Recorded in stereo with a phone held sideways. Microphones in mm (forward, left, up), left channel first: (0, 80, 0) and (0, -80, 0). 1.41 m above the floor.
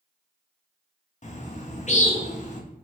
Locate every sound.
1.2 s a bird: 50° left (ahead or behind), 0.6 m